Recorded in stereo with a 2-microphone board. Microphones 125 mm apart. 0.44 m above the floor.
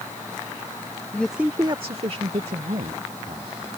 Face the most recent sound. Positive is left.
turn(degrees=-70)  # may be behind; listen again after turning